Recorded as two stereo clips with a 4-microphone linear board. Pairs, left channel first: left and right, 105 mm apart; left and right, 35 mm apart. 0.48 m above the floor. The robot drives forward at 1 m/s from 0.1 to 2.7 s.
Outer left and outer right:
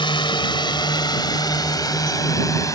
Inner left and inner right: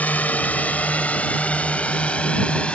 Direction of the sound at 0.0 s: 50° left (ahead or behind).